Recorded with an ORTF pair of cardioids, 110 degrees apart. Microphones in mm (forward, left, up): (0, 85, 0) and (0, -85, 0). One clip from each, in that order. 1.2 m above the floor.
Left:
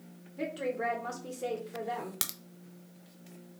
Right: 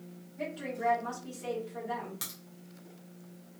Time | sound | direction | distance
0.4 | a woman speaking | 60° left | 1.6 m
2.2 | a crack | 55° left | 0.5 m